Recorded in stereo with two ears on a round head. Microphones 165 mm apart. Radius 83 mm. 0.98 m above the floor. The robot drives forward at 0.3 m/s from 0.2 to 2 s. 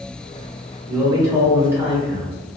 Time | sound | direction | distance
0.9 | a man speaking | 15° right (ahead or behind) | 0.9 m